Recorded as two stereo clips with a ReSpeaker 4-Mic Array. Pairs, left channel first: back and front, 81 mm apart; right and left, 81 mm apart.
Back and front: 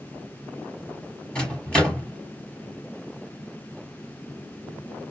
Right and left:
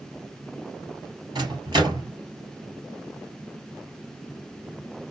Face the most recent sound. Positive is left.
turn(degrees=100)